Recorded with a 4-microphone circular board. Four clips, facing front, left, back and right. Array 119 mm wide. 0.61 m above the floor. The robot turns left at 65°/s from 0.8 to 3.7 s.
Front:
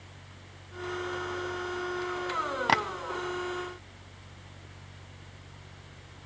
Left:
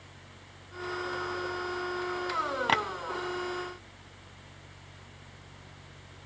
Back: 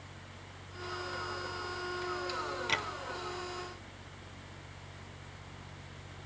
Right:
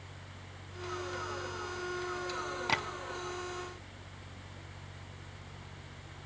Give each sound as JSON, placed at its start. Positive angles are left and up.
{"t": 2.7, "sound": "tapping", "azimuth_deg": 30, "distance_m": 1.0}